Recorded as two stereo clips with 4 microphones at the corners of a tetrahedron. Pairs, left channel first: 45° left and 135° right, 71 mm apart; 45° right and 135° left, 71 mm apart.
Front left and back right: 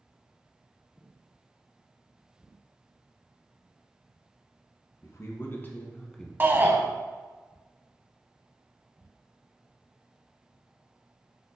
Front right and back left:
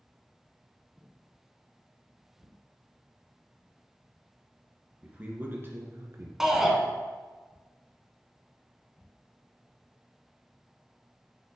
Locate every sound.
5.0 s a man speaking: 70° left, 1.8 m; by 6.3 s 125° left, 1.5 m
6.4 s a shout: 150° right, 1.1 m